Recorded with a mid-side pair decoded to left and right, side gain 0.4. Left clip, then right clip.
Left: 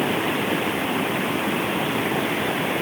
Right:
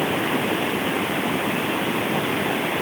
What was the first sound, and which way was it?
Only background noise.